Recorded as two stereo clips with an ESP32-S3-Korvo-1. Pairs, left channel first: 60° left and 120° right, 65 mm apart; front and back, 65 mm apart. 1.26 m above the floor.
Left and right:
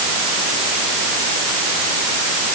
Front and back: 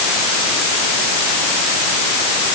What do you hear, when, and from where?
Only background noise.